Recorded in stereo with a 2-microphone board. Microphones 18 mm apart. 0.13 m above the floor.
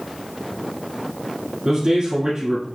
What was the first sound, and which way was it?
A man speaking, 40° right (ahead or behind).